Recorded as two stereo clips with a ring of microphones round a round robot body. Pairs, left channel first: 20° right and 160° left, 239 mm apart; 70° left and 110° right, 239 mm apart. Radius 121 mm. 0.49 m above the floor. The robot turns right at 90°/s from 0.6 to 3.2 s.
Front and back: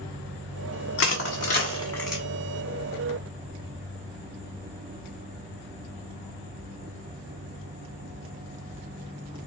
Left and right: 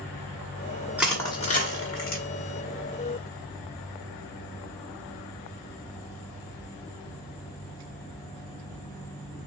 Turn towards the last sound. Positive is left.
turn(degrees=170)